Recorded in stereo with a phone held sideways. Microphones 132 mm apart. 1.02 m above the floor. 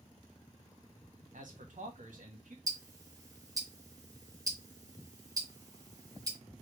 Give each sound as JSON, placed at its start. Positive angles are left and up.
{"t": 1.3, "sound": "a man speaking", "side_deg": -80, "distance_m": 1.3}
{"t": 2.7, "sound": "ticking", "side_deg": -25, "distance_m": 0.9}